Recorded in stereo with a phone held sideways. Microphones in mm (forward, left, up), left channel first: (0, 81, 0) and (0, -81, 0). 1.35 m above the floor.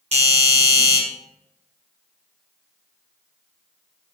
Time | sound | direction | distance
0.1 | a doorbell | 40° right (ahead or behind) | 1.1 m